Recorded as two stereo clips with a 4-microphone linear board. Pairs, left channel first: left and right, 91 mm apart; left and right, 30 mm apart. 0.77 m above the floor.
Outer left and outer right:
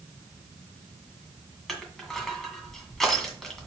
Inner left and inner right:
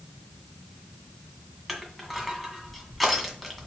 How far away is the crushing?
About 1.8 m.